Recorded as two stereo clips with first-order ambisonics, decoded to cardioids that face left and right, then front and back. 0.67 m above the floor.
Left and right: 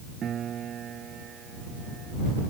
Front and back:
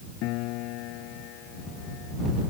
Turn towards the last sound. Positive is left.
turn(degrees=-30)